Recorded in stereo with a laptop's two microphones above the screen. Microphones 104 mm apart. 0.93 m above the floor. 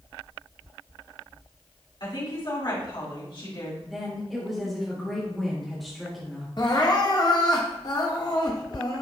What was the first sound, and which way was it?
A woman speaking, 50° left (ahead or behind).